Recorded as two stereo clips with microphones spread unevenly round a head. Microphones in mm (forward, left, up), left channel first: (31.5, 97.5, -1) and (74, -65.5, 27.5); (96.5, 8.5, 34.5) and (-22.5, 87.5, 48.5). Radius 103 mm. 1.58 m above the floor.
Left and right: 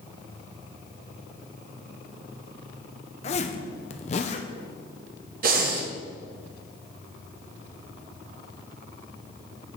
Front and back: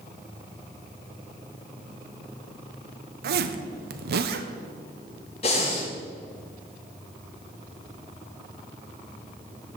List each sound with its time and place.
3.2 s a zipper: 160° left, 0.7 m
5.4 s breathing: 95° right, 1.3 m